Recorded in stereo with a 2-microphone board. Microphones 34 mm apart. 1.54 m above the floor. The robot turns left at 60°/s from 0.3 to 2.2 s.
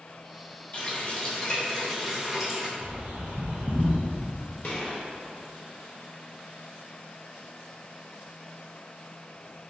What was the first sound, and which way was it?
A running tap, 80° left.